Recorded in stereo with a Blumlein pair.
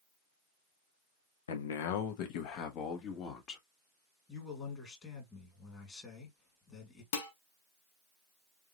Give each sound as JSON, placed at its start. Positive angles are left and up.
{"t": 1.5, "sound": "a man speaking", "azimuth_deg": 65, "distance_m": 1.1}
{"t": 4.3, "sound": "a man speaking", "azimuth_deg": 20, "distance_m": 2.0}
{"t": 7.1, "sound": "dishes clattering", "azimuth_deg": 55, "distance_m": 1.4}